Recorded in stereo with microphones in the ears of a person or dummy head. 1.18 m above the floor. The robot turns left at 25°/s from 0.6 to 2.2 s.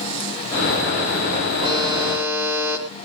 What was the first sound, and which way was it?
A buzzer, 20° right (ahead or behind).